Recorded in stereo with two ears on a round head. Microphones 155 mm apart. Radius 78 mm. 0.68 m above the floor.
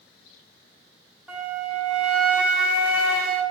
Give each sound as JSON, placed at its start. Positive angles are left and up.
{"t": 1.3, "sound": "a flute", "side_deg": -5, "distance_m": 2.5}